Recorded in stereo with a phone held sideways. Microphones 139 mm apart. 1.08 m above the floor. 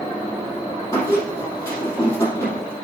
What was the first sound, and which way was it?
A squeak, 20° left (ahead or behind).